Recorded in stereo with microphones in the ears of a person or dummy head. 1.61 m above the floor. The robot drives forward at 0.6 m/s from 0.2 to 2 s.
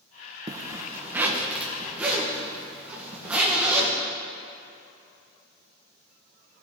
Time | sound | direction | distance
0.5 | a zipper | 20° right (ahead or behind) | 0.5 m